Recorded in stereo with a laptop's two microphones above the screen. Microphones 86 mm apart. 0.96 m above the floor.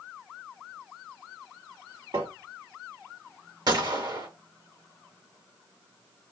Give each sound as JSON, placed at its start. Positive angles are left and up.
{"t": 2.1, "sound": "tapping", "side_deg": -60, "distance_m": 1.3}
{"t": 3.7, "sound": "a gunshot", "side_deg": -50, "distance_m": 1.0}